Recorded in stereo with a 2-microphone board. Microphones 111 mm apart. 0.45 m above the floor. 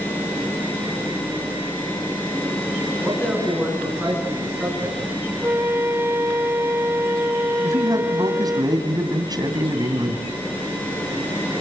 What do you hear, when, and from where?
3.0 s a man speaking: 5° right (ahead or behind), 5 m
5.4 s a flute: 25° right (ahead or behind), 0.7 m
7.6 s a man speaking: 40° right (ahead or behind), 2.5 m